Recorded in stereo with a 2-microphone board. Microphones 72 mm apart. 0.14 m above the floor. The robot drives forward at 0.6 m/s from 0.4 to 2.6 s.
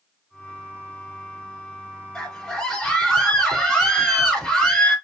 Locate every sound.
2.1 s a scream: 10° left (ahead or behind), 2 m; by 5.0 s 5° left (ahead or behind), 2 m